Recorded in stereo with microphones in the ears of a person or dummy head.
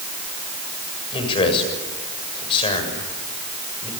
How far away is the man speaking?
About 7 m.